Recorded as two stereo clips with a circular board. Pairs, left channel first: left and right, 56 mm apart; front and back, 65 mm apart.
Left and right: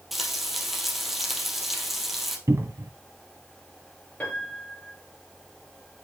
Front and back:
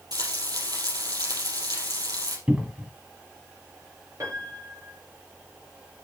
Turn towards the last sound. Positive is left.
turn(degrees=155)